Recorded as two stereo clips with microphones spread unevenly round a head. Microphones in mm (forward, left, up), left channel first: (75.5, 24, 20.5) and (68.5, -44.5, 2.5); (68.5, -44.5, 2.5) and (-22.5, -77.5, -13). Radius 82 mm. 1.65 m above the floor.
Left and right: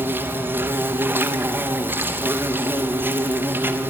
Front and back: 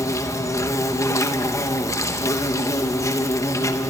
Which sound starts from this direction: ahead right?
An insect, at 0.0 s.